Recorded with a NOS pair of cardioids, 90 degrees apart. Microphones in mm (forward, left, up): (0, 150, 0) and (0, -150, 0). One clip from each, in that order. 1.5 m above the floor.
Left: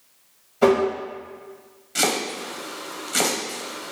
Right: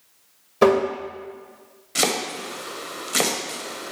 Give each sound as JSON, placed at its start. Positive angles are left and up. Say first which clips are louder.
{"t": 0.6, "sound": "tapping", "louder": "right 1 dB", "azimuth_deg": -65, "distance_m": 1.7}
{"t": 1.9, "sound": "chopping", "louder": "even", "azimuth_deg": -15, "distance_m": 0.8}